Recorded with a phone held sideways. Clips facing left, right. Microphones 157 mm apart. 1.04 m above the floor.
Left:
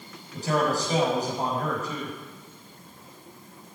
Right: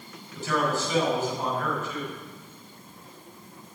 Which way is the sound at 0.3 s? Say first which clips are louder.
Left 2 dB; 40° left (ahead or behind).